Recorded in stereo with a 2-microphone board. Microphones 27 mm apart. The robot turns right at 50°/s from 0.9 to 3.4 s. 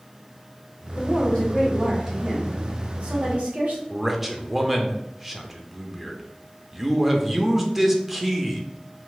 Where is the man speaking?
10° right (ahead or behind), 0.6 m.